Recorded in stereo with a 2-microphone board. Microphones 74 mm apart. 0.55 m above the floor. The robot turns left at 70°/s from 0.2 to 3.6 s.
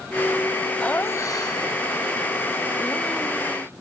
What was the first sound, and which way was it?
Laughter, 165° left.